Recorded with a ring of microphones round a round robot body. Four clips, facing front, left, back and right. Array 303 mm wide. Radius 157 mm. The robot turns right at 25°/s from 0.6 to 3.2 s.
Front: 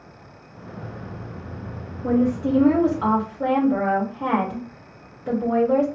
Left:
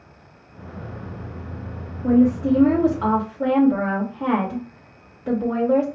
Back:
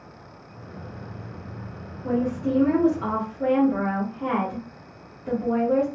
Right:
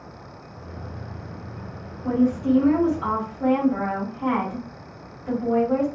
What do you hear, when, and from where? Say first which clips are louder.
2.0 s a woman speaking: left 4 dB, front 4 dB; 35° left, 2.5 m; by 5.9 s 65° left, 2.5 m